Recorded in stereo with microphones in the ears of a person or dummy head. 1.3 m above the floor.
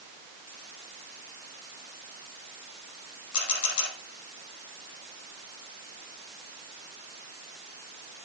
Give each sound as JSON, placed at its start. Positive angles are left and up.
{"t": 3.3, "sound": "a camera shutter", "side_deg": 80, "distance_m": 5.0}